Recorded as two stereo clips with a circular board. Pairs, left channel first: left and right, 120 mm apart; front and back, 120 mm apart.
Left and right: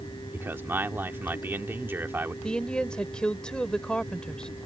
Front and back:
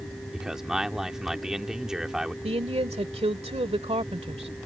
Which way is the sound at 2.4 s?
170° left.